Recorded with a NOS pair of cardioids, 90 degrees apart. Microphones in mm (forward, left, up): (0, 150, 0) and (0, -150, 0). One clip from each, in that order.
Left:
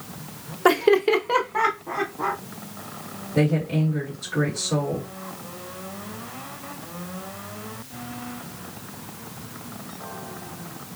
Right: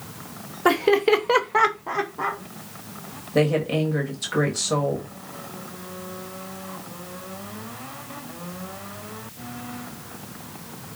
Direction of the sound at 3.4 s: 60° right.